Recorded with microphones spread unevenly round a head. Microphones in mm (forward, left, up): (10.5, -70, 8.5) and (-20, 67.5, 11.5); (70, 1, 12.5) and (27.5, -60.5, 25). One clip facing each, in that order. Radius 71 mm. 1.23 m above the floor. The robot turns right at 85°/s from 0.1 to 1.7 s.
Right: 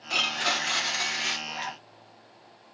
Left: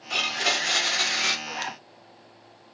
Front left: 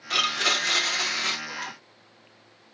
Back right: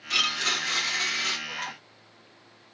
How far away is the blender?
About 2 m.